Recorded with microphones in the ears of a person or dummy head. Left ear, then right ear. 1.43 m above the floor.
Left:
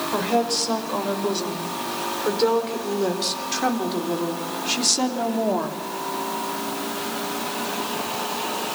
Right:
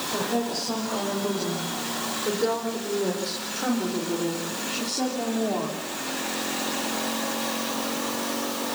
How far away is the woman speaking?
About 6.5 m.